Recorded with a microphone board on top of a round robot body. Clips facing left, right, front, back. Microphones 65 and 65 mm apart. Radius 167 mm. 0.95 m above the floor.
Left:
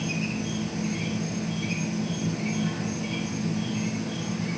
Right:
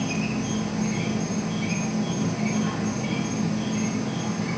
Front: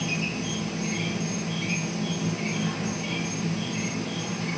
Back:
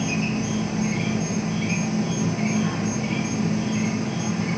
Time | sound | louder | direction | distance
0.0 | an insect | right 3 dB, back 5 dB | 115° right | 1.9 m